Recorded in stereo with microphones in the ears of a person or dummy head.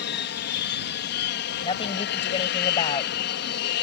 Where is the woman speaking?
30° left (ahead or behind).